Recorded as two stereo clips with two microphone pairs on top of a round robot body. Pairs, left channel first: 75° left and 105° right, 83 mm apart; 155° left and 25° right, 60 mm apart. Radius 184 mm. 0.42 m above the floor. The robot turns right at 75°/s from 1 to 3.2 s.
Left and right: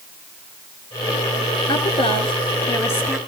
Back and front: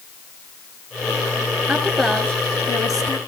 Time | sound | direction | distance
1.7 | a woman speaking | 50° left | 5 m